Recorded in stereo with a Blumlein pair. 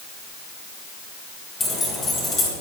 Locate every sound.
1.6 s keys jangling: 15° left, 4 m